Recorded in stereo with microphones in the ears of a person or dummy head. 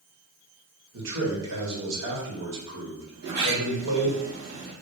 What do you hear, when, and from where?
0.9 s a man speaking: 85° right, 1.9 m
3.1 s a sliding door: 65° right (ahead or behind), 1.5 m